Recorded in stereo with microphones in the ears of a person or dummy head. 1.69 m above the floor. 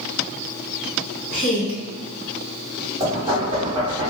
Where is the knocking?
25° right (ahead or behind), 1.7 m.